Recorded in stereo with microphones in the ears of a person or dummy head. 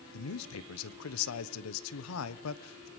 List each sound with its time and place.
0.1 s a man speaking: 85° left, 1.3 m